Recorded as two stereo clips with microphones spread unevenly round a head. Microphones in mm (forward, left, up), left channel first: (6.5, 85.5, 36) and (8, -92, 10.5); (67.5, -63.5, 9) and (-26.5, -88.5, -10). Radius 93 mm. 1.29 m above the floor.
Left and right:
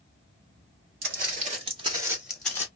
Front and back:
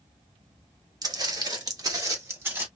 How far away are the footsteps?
About 1.8 m.